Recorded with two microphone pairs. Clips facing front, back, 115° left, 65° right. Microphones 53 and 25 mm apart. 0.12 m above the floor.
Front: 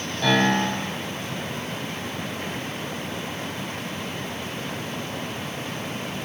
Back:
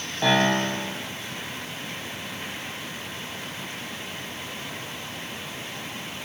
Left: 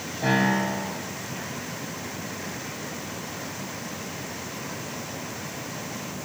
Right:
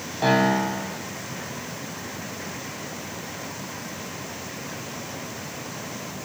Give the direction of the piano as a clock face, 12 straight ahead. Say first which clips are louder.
Front 1 dB, right 3 dB; 4 o'clock.